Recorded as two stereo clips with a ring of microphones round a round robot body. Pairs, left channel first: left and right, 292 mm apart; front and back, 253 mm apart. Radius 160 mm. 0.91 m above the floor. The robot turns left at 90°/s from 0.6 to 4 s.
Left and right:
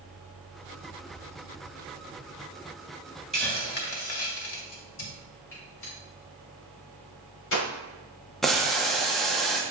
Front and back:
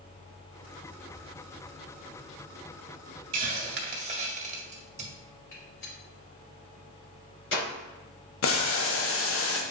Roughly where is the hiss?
Behind.